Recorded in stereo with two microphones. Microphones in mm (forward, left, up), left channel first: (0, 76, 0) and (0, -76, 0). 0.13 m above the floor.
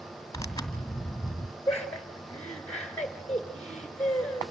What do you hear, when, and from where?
0.3 s tearing paper: 20° left (ahead or behind), 1.8 m
1.7 s laughter: 10° left (ahead or behind), 1.8 m